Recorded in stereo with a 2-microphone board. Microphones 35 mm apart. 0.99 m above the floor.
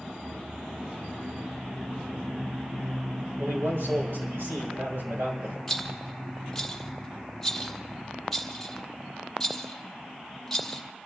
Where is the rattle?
10° left (ahead or behind), 1.3 m.